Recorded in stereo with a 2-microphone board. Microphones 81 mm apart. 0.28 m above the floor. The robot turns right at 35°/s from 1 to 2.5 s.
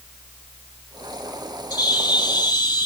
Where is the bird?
65° left (ahead or behind), 1.2 m; by 2.9 s 70° left (ahead or behind), 1.2 m.